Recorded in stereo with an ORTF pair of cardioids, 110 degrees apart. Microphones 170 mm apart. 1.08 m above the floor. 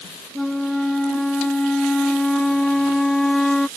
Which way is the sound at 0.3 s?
5° left.